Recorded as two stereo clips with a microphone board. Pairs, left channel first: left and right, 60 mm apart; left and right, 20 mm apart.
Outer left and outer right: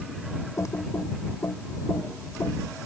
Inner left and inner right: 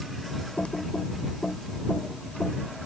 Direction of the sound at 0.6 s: 65° left (ahead or behind).